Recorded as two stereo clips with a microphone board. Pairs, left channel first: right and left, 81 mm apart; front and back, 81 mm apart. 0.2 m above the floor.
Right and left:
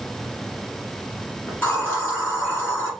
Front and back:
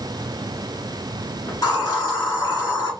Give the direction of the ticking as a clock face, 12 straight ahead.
No ticking in this recording.